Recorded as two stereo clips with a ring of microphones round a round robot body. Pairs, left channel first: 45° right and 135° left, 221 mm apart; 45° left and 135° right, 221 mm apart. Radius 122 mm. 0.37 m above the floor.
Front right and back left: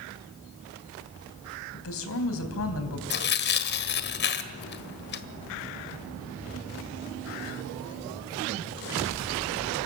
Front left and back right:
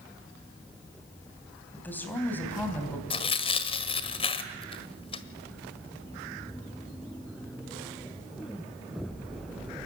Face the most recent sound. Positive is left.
turn(degrees=-15)